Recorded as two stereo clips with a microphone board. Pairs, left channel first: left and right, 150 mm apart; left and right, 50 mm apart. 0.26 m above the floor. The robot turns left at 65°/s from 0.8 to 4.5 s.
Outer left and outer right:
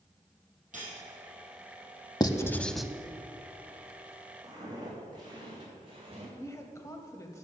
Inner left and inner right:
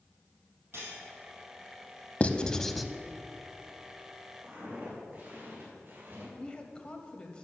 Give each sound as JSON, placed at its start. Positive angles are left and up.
{"t": 0.7, "sound": "cutlery clinking", "side_deg": -65, "distance_m": 4.5}
{"t": 2.2, "sound": "writing", "side_deg": 30, "distance_m": 0.6}
{"t": 4.4, "sound": "footsteps", "side_deg": -20, "distance_m": 4.5}
{"t": 6.4, "sound": "a woman speaking", "side_deg": 20, "distance_m": 0.9}